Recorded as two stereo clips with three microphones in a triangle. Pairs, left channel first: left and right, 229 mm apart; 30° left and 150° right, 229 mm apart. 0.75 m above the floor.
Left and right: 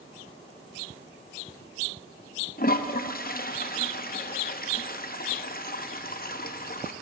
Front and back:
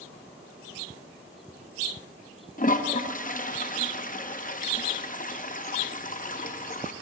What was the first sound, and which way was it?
A toilet flushing, 65° left.